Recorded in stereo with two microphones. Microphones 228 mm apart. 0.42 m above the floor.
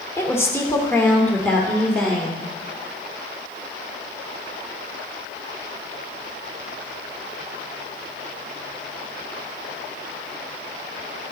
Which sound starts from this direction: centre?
A woman speaking, at 0.2 s.